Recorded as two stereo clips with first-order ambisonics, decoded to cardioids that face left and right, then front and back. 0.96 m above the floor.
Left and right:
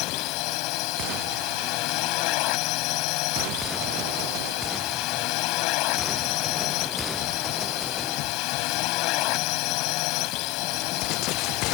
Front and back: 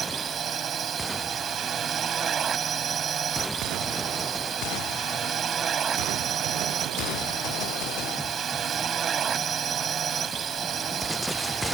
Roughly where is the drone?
Behind left.